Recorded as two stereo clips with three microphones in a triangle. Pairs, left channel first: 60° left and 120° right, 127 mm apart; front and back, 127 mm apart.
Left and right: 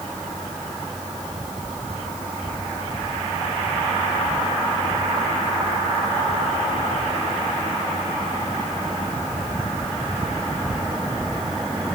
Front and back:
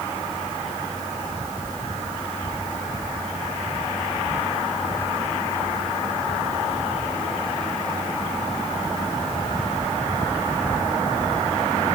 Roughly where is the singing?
I don't hear singing.